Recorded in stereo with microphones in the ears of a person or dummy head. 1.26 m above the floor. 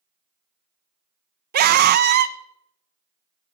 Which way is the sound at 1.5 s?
55° right (ahead or behind).